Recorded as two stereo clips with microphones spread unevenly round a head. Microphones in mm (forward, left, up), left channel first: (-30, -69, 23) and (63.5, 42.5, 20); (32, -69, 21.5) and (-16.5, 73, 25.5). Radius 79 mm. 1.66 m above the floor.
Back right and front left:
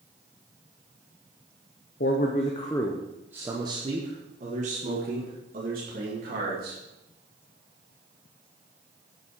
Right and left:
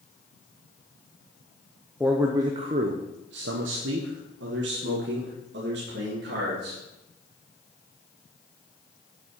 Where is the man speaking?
165° right, 1.0 m; by 6.8 s 85° left, 3.5 m.